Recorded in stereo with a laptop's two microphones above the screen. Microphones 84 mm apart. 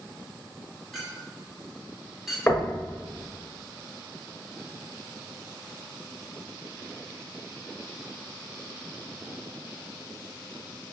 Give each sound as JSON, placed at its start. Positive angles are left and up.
{"t": 0.9, "sound": "a clink", "side_deg": 0, "distance_m": 1.5}
{"t": 2.5, "sound": "knocking", "side_deg": 20, "distance_m": 1.1}